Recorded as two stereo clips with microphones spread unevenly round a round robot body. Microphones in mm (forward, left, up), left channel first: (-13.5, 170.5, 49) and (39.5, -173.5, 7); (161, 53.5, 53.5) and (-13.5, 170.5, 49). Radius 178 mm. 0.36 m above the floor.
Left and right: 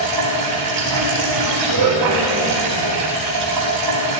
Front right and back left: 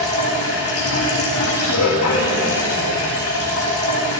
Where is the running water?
50° right, 4.5 m.